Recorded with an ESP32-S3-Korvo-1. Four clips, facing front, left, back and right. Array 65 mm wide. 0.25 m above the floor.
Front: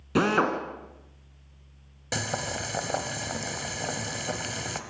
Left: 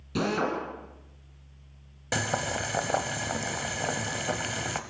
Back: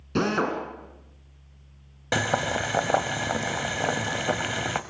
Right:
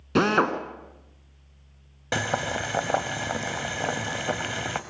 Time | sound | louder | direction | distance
0.1 | a drill | right 6 dB, front 1 dB | 70° right | 2.5 m
2.1 | boiling | right 3 dB, back 7 dB | 160° right | 1.1 m